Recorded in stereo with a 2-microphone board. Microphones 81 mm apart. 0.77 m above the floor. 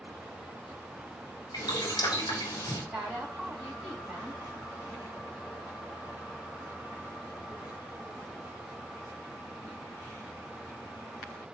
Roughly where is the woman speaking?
Centre.